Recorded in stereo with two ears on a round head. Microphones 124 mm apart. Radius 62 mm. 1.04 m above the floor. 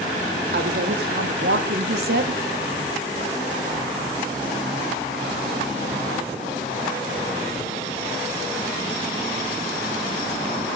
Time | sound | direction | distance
0.5 | a woman speaking | 85° right | 3.5 m